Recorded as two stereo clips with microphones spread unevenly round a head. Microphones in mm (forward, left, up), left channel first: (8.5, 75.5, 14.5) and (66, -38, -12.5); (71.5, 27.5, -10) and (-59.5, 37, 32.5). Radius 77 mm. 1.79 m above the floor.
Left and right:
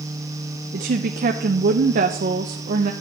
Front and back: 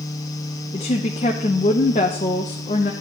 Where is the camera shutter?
No camera shutter in this recording.